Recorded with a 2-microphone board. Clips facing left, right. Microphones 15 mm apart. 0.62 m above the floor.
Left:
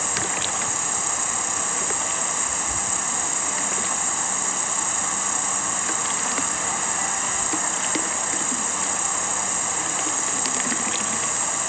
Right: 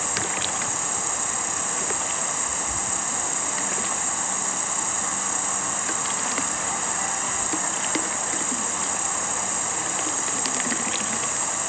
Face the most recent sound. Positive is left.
turn(degrees=5)  # may be behind; listen again after turning